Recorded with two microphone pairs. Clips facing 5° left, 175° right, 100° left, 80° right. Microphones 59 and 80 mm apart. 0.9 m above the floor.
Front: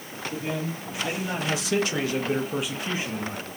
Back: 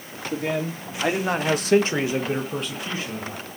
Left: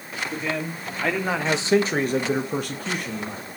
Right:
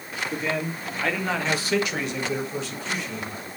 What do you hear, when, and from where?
0.3 s a man speaking: 165° right, 2 m; by 3.5 s 65° left, 1.9 m